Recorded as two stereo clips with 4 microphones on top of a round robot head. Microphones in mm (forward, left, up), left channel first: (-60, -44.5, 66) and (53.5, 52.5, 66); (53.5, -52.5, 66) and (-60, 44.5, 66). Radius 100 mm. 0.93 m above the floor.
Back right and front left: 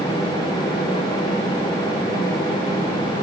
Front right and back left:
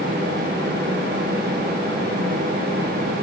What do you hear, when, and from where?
Only background noise.